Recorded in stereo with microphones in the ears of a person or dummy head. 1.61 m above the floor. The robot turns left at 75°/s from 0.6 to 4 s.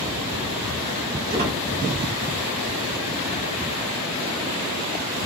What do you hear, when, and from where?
1.3 s a squeak: 45° right (ahead or behind), 1.0 m; by 1.6 s 25° right (ahead or behind), 1.0 m